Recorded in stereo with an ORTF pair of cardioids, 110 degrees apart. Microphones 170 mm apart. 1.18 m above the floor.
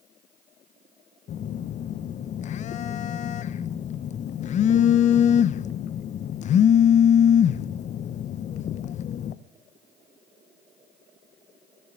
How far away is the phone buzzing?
About 0.5 m.